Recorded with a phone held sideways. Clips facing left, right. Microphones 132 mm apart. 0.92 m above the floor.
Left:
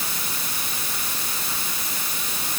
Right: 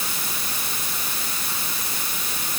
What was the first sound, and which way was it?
Only background noise.